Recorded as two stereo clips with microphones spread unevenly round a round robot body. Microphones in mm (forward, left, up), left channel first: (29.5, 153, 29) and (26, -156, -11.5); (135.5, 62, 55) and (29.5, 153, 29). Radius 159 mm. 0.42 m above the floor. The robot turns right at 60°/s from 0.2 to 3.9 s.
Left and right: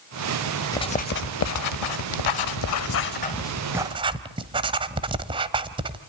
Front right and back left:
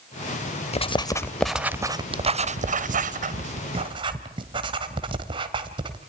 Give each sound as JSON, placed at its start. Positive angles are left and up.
{"t": 0.7, "sound": "writing", "azimuth_deg": 5, "distance_m": 1.2}